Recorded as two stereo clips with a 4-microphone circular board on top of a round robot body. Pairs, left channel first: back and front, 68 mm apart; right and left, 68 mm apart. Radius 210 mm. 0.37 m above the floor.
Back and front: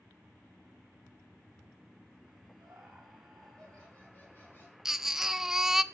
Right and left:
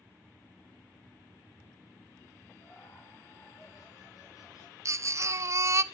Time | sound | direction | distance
2.6 | laughter | 60° right | 1.8 m
4.8 | a baby crying | 80° left | 0.5 m